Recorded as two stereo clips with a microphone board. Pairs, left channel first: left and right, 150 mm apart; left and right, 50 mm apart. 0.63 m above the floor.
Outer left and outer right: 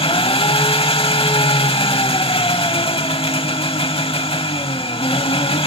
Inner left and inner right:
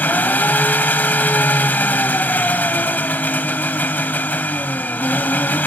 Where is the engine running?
40° left (ahead or behind), 0.8 m.